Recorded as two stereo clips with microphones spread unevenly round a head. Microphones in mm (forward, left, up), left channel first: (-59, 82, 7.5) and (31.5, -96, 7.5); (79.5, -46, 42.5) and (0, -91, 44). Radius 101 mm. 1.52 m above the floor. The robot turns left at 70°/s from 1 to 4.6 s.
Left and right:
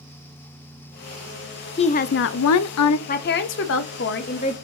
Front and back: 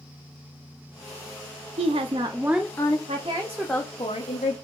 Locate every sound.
1.8 s a woman speaking: straight behind, 0.5 m; by 3.0 s 95° left, 0.5 m
3.1 s a woman speaking: 160° left, 0.8 m; by 4.5 s 60° left, 0.8 m